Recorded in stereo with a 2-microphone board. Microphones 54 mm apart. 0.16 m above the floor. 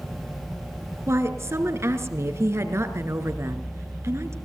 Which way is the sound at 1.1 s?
55° right (ahead or behind).